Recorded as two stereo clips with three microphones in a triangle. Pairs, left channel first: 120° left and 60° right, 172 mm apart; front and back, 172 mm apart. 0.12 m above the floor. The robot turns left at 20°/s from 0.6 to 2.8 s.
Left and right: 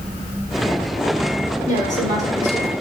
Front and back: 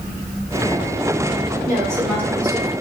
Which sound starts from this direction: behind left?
A woman speaking, at 1.7 s.